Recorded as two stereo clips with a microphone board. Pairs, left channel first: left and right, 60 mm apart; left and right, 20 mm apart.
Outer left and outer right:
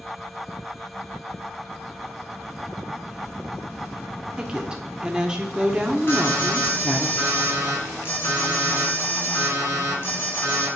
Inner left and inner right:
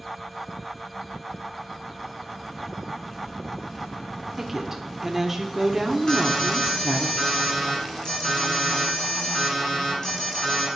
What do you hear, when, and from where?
4.4 s a woman speaking: 15° right (ahead or behind), 0.9 m
6.1 s an alarm: 35° left (ahead or behind), 3.5 m